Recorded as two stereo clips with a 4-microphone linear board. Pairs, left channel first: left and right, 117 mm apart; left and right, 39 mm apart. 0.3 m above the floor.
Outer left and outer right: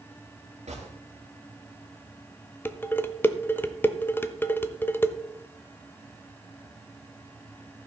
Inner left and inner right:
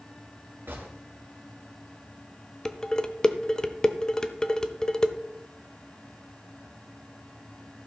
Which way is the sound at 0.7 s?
75° right (ahead or behind).